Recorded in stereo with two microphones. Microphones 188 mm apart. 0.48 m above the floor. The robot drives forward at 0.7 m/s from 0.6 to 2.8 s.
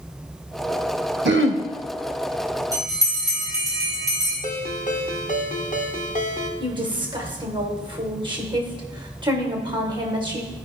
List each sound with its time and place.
1.2 s throat clearing: 65° right (ahead or behind), 0.6 m; by 1.6 s 80° right, 0.6 m
2.7 s a bell: 15° right (ahead or behind), 2.5 m
4.4 s a ringtone: 40° left (ahead or behind), 0.8 m
6.6 s a woman speaking: 25° right (ahead or behind), 1.2 m